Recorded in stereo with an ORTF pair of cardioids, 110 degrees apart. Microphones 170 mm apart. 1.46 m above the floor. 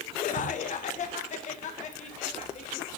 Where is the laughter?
50° left, 0.8 m; by 2.9 s 45° left, 2.5 m.